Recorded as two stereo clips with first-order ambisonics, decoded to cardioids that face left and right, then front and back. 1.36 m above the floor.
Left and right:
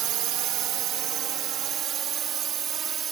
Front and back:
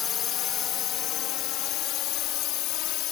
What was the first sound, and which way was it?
A drone, 55° right.